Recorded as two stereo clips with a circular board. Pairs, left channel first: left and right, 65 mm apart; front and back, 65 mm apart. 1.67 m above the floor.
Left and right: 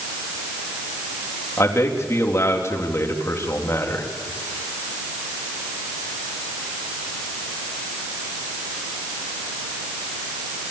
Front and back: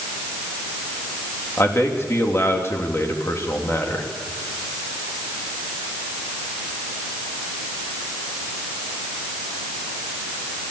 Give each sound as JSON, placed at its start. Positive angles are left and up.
{"t": 1.6, "sound": "a man speaking", "azimuth_deg": 45, "distance_m": 3.0}